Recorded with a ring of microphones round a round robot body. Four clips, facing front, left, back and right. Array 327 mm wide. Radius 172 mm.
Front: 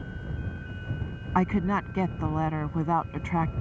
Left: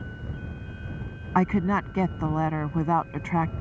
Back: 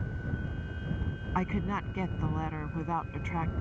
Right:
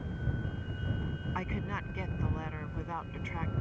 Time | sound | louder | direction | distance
1.4 | a woman speaking | left 17 dB, front 7 dB | 65° left | ?